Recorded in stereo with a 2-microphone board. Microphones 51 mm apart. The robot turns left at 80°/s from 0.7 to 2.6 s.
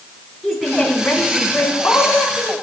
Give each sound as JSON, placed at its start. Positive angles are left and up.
{"t": 0.4, "sound": "a woman speaking", "azimuth_deg": 180, "distance_m": 3.5}